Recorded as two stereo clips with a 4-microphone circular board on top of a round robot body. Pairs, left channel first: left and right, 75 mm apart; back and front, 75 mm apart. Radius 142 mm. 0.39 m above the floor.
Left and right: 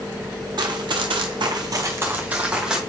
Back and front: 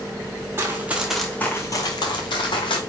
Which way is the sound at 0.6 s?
60° right.